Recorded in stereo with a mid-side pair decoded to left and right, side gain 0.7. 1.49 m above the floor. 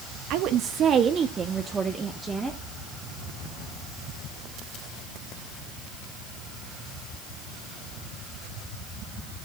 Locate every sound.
0.3 s a woman speaking: 65° right, 1.0 m; by 2.6 s 10° right, 2 m